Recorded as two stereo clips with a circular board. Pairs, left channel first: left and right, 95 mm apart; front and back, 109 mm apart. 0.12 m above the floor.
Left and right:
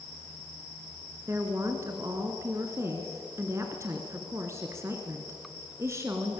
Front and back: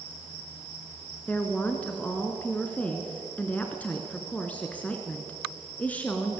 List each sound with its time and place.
1.3 s a woman speaking: 65° right, 1.8 m